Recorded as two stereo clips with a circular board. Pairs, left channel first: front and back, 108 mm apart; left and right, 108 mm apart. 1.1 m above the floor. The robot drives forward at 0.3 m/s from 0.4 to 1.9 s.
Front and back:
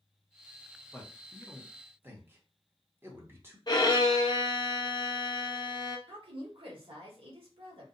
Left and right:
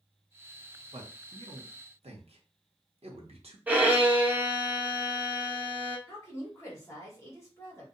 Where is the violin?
20° right, 0.5 m.